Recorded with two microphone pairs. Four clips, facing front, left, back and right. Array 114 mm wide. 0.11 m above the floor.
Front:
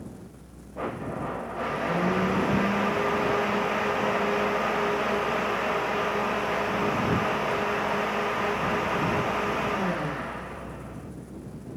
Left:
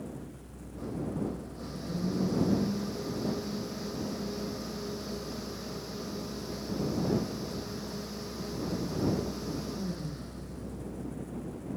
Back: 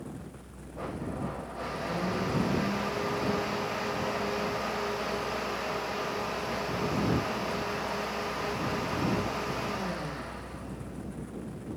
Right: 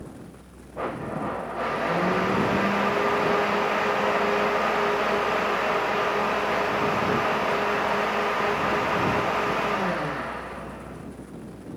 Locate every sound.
0.8 s a blender: 75° right